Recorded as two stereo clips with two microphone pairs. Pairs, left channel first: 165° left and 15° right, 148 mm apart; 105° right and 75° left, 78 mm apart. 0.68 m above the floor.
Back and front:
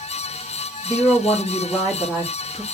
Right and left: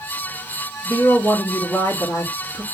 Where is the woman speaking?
105° right, 1.2 m.